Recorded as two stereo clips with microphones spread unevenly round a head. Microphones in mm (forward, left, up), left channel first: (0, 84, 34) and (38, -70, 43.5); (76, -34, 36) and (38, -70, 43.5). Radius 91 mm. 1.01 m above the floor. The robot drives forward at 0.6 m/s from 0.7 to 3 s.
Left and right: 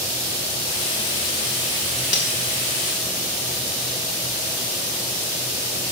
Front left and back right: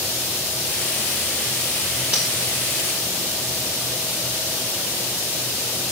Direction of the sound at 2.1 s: 115° left.